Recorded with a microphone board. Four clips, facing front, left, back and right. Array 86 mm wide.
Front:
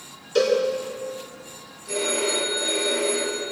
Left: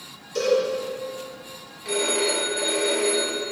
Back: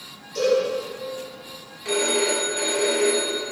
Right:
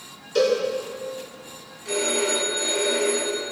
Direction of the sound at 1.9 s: 165° left.